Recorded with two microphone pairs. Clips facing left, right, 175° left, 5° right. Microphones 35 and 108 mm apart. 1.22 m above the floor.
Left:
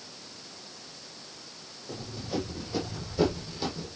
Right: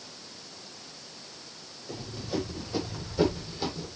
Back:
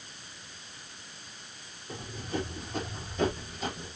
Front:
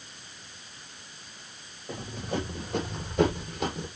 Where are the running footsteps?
Straight ahead, 4 m; by 3.9 s 5° right, 3 m.